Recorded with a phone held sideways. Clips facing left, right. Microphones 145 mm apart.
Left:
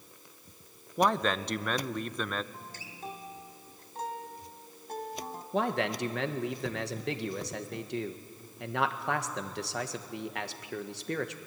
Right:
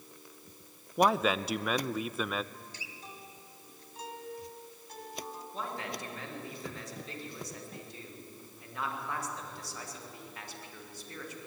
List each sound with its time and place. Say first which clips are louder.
1.0 s a man speaking: right 1 dB; 5° right (ahead or behind), 0.6 m
2.5 s a guitar: left 3 dB; 50° left (ahead or behind), 1.7 m
5.5 s a man speaking: left 11 dB; 70° left (ahead or behind), 1.5 m